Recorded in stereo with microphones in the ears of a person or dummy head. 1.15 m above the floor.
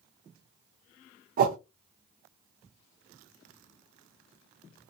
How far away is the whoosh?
About 0.6 m.